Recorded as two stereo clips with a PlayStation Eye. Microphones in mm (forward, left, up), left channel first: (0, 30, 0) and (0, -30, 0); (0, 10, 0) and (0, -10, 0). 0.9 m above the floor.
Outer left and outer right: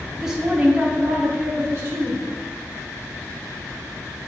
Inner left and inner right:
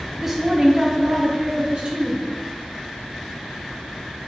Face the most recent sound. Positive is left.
turn(degrees=-45)  # may be behind; listen again after turning